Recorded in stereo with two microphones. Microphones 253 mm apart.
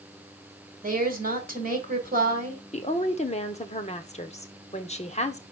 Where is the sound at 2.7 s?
25° left (ahead or behind), 1.1 m.